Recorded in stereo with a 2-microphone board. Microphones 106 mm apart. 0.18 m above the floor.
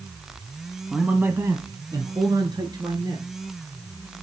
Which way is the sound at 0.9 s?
5° right (ahead or behind).